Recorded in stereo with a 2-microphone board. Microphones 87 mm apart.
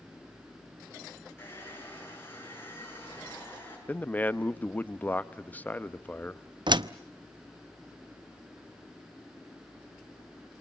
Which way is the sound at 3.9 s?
20° left (ahead or behind).